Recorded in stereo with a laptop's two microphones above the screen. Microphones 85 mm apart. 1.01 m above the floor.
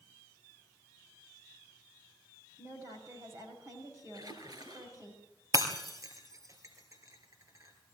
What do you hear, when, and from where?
2.6 s a woman speaking: 40° right (ahead or behind), 6.5 m
4.1 s a splash: 55° right (ahead or behind), 3 m
5.5 s breaking glass: 45° right (ahead or behind), 3 m